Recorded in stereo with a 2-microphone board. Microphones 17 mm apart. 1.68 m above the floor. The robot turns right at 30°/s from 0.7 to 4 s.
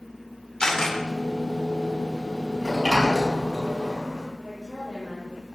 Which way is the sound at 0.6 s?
55° left (ahead or behind).